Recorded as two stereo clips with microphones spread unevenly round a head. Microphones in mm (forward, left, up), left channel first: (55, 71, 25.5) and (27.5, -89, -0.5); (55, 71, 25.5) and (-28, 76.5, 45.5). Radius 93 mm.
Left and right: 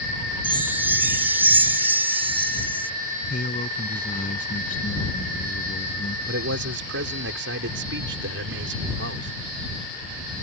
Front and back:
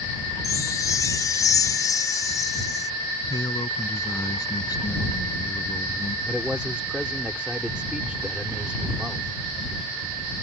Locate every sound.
0.4 s a chime: 15° right
3.3 s a man speaking: 40° left
6.3 s a man speaking: 100° right